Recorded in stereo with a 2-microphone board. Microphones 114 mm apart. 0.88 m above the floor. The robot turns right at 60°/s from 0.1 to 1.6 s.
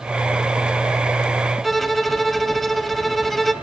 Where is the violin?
Centre (ahead or behind), 0.8 m.